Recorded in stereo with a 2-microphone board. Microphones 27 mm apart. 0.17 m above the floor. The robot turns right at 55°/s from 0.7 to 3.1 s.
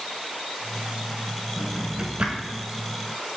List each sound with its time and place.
1.6 s a drawer: 10° right (ahead or behind), 0.7 m; by 2.6 s 55° right (ahead or behind), 0.7 m